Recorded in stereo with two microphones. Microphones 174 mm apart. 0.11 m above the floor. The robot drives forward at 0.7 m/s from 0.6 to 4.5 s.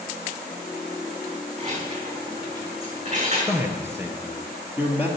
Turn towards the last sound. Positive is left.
turn(degrees=-10)  # may be behind; listen again after turning